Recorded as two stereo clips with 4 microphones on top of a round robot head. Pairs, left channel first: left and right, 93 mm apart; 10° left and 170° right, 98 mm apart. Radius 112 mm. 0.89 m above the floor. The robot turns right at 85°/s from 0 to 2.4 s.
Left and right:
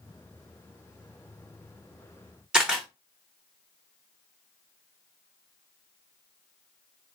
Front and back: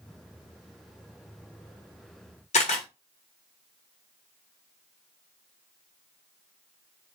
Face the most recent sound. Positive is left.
turn(degrees=-10)